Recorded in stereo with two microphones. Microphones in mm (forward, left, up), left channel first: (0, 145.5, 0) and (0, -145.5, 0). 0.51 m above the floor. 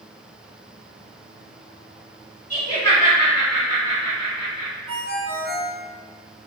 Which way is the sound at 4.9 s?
50° right (ahead or behind).